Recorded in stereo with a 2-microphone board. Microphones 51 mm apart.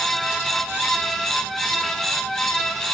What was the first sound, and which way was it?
Only background noise.